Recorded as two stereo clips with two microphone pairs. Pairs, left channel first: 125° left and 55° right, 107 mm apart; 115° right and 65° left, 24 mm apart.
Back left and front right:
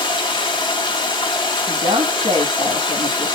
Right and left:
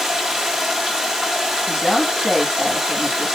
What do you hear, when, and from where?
0.0 s running water: 135° left, 1.1 m
1.7 s a woman speaking: 40° right, 1.6 m